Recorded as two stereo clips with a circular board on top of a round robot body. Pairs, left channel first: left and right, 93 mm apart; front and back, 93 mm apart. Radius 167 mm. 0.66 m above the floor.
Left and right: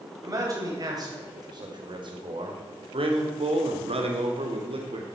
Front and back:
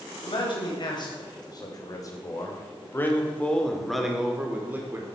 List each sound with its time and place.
0.2 s a man speaking: 35° right, 4 m; by 5.1 s 115° right, 2.5 m